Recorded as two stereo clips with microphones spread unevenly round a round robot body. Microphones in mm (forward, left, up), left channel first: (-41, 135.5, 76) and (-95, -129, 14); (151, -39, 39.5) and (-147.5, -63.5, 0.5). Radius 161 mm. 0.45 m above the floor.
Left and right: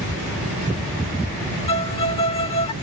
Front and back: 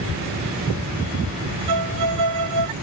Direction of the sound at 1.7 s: 145° left.